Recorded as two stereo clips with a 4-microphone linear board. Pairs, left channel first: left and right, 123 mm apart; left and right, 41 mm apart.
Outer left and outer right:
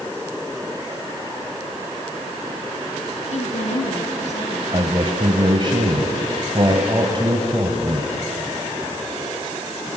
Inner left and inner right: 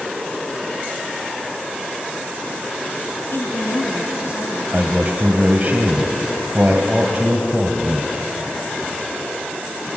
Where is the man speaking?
40° right (ahead or behind), 2.0 m.